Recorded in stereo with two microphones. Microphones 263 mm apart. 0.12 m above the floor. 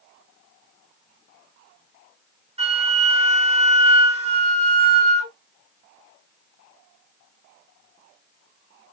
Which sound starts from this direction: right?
A flute, at 2.6 s.